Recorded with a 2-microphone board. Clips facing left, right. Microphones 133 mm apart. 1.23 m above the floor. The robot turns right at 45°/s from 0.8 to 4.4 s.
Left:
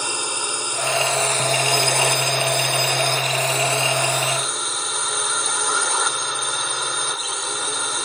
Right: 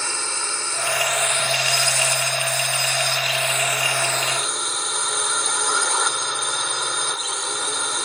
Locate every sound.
0.0 s a drone: 15° left; by 8.1 s straight behind